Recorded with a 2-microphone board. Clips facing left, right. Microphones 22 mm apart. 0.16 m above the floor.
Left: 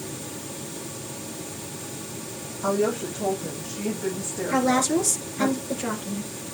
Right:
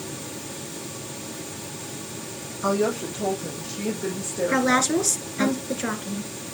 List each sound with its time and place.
2.6 s a woman speaking: 50° right (ahead or behind), 7.5 m
4.5 s a woman speaking: 35° right (ahead or behind), 1.9 m